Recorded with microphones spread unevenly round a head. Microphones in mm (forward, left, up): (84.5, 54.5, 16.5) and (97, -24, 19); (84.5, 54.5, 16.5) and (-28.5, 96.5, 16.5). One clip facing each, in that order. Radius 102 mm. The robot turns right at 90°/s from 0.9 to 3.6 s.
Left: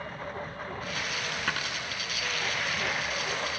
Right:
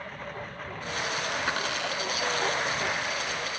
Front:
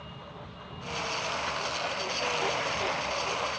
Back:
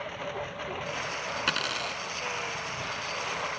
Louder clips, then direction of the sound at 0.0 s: Left 1 dB, back 9 dB; 175° right.